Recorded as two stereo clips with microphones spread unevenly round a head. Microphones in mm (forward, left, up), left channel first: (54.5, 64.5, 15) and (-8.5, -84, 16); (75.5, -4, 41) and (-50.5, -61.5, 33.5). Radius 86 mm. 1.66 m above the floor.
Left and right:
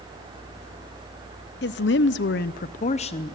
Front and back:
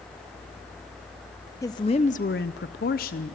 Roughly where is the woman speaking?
Left.